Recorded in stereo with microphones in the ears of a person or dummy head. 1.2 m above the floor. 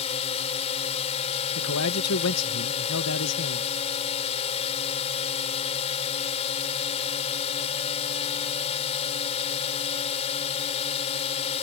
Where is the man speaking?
80° left.